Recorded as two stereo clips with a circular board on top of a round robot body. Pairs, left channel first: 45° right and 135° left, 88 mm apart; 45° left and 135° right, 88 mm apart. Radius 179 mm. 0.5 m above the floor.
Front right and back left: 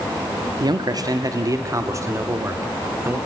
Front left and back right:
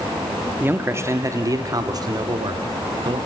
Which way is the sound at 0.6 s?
160° left.